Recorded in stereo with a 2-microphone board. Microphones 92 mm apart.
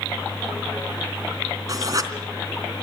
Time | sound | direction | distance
1.7 | writing | 40° right (ahead or behind) | 3.5 m